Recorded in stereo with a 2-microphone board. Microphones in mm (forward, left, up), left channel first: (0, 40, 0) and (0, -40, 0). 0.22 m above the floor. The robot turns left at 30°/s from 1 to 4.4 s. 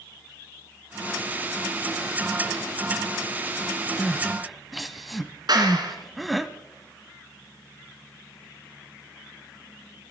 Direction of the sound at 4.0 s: 10° left (ahead or behind).